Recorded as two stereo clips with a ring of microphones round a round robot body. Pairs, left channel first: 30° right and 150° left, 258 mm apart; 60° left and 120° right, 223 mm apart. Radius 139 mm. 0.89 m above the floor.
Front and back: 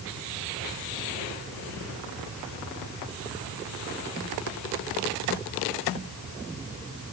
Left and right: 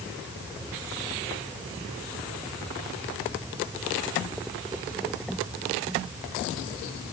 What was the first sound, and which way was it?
Only background noise.